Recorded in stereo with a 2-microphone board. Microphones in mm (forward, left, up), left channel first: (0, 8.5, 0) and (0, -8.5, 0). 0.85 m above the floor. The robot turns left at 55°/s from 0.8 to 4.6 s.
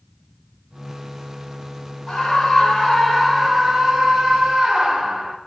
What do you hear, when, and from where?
2.1 s a scream: 70° left, 3 m; by 5.4 s 70° right, 3 m